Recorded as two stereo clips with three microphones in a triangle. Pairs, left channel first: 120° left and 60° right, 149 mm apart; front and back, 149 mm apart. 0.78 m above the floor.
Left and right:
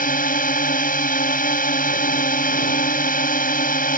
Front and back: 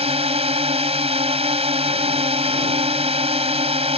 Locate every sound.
0.0 s a drone: 135° left